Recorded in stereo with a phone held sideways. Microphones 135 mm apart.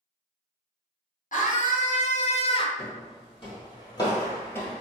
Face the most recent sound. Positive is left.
turn(degrees=10)  # may be behind; listen again after turning